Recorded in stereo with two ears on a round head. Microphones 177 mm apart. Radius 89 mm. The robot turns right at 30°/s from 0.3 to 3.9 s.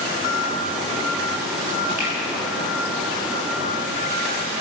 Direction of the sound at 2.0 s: 45° right (ahead or behind).